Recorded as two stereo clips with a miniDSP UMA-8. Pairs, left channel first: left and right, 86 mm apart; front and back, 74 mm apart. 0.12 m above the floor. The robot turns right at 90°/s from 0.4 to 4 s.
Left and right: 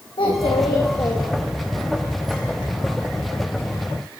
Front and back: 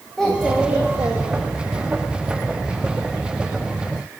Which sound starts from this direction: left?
A child speaking, at 0.2 s.